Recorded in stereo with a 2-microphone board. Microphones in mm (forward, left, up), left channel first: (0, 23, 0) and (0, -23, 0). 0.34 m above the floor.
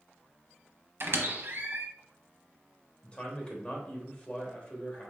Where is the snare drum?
I don't hear a snare drum.